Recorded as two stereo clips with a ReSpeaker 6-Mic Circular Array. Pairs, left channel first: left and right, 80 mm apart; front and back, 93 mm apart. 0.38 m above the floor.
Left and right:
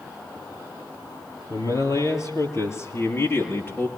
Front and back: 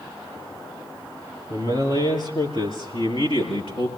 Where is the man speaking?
45° left, 7.5 m; by 3.9 s 25° left, 6 m.